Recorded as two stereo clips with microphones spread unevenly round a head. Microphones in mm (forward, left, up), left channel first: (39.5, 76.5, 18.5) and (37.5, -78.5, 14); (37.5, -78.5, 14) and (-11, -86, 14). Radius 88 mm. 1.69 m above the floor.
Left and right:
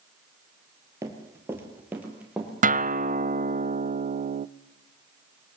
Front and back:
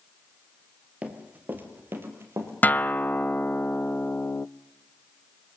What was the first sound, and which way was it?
Running footsteps, 150° right.